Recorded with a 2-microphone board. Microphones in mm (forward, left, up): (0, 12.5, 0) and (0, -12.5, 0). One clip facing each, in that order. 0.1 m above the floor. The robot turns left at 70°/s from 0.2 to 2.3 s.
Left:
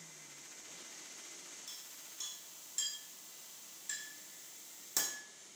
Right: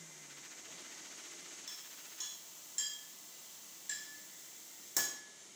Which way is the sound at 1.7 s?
25° right (ahead or behind).